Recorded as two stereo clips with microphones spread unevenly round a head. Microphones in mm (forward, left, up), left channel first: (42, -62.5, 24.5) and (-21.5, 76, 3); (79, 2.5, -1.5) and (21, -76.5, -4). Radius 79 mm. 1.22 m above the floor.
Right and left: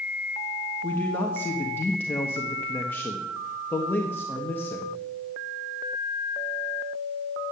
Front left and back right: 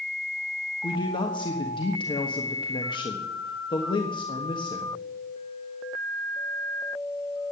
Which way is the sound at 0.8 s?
10° left.